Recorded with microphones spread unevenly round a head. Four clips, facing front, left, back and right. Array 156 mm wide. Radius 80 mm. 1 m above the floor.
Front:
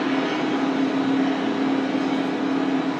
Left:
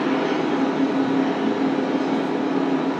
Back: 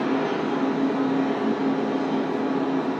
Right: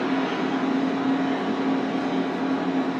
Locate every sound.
0.0 s a machine running: 90° left, 0.8 m